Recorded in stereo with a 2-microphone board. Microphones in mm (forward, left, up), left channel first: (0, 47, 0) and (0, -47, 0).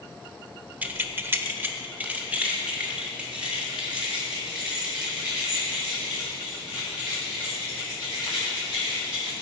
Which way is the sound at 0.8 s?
20° right (ahead or behind).